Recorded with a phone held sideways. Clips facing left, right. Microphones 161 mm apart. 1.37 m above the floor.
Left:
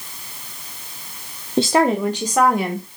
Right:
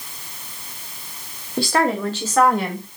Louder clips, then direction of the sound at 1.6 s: Left 4 dB; 20° left (ahead or behind).